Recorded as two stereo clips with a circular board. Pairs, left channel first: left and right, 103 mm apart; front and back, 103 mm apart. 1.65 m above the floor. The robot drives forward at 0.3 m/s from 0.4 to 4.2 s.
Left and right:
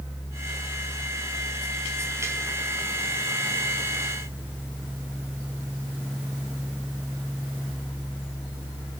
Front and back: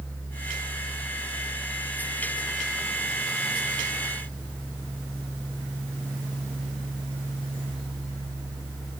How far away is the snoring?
No snoring in this recording.